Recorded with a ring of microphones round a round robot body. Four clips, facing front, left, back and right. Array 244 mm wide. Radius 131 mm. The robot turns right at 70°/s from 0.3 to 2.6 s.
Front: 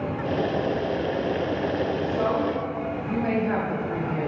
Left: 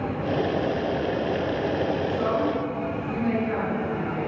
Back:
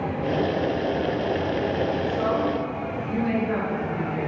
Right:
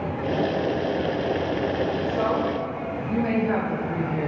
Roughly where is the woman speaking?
Right.